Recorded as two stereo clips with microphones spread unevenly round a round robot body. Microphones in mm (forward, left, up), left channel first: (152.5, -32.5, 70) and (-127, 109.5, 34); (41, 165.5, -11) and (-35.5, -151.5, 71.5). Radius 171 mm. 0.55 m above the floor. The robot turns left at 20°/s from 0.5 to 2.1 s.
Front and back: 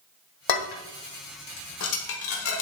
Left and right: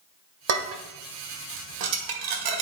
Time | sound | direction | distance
0.5 | dishes clattering | 45° right | 1.4 m